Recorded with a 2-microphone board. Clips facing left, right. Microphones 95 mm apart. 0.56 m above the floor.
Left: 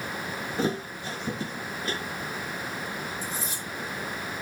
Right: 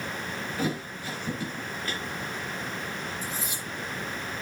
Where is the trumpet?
I don't hear a trumpet.